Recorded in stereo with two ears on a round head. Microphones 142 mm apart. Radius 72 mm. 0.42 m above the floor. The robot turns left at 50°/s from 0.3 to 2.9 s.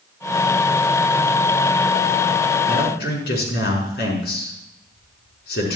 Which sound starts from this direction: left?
A man speaking, at 2.7 s.